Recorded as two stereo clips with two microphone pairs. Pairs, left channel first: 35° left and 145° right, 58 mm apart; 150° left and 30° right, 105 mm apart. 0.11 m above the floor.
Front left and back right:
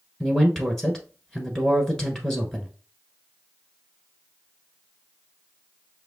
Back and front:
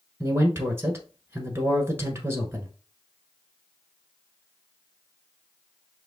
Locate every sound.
0.2 s a man speaking: 25° right, 1.2 m